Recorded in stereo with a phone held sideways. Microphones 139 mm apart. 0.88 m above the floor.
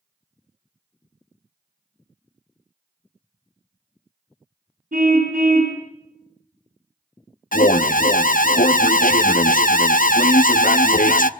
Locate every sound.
4.9 s a car horn: 85° right, 4 m
7.5 s an alarm: 80° left, 0.7 m